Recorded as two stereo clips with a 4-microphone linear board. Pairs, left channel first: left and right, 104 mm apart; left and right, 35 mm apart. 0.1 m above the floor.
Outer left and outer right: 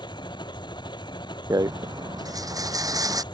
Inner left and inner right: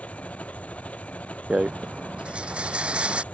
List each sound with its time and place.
0.0 s an engine running: 45° left (ahead or behind)
1.5 s a rattle: 35° right (ahead or behind)